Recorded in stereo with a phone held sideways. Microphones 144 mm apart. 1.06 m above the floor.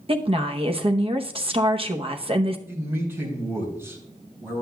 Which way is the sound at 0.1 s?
40° right (ahead or behind).